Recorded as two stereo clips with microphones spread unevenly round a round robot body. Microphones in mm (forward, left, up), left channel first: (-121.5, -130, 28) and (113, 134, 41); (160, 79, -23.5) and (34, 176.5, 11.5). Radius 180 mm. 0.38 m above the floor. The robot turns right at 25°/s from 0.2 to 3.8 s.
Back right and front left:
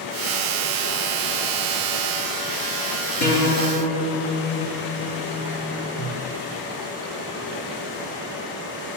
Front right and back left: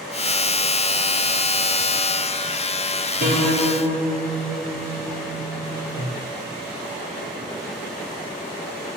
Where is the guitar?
175° right, 3.5 m; by 6.2 s 160° right, 3.5 m.